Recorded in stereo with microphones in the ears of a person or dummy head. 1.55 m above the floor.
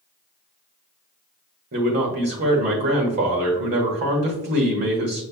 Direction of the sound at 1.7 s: 55° right (ahead or behind).